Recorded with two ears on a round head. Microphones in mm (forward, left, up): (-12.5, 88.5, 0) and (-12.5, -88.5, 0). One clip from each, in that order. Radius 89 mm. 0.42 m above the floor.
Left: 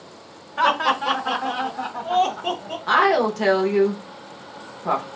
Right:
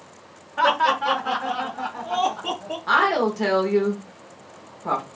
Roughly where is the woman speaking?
Centre.